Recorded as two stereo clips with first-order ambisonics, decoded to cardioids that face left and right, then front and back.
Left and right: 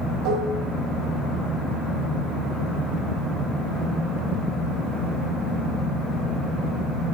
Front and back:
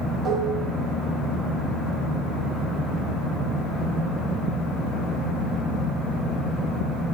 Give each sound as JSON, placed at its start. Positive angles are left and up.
{"t": 0.2, "sound": "dishes clattering", "azimuth_deg": -130, "distance_m": 1.6}